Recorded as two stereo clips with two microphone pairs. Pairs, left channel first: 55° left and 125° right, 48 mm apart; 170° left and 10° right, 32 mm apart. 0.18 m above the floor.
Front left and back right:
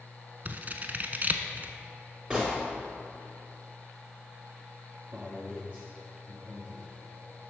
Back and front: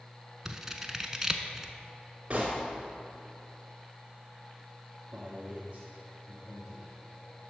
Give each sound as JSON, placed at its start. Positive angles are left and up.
{"t": 0.5, "sound": "scissors", "azimuth_deg": -80, "distance_m": 0.6}
{"t": 2.3, "sound": "a gunshot", "azimuth_deg": -60, "distance_m": 2.5}
{"t": 5.1, "sound": "a man speaking", "azimuth_deg": -65, "distance_m": 2.0}